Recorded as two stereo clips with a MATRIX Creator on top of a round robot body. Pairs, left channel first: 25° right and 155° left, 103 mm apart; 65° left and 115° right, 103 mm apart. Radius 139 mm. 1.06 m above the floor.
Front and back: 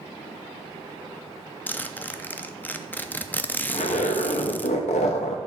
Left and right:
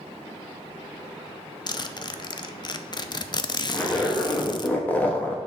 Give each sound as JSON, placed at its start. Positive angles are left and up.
{"t": 1.7, "sound": "a zipper", "azimuth_deg": 45, "distance_m": 0.7}
{"t": 3.7, "sound": "a zipper", "azimuth_deg": -10, "distance_m": 1.0}